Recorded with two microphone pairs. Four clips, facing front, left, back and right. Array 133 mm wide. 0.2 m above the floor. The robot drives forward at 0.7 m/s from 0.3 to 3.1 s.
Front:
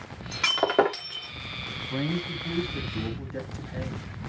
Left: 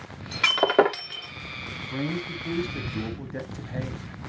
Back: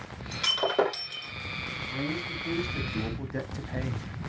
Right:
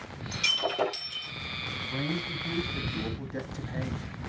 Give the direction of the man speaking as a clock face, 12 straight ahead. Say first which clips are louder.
Left 3 dB, front 4 dB; 12 o'clock.